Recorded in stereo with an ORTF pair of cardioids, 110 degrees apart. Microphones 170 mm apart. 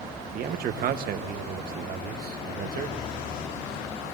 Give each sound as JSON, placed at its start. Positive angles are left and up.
{"t": 0.3, "sound": "a man speaking", "azimuth_deg": -65, "distance_m": 1.2}